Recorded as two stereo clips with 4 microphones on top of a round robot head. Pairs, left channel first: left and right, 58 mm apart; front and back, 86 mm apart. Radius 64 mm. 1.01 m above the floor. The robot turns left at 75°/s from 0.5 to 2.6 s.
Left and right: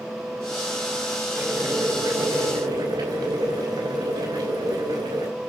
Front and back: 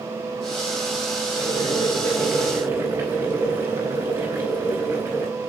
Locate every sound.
1.4 s boiling: 15° right, 5 m; by 5.3 s 110° right, 5 m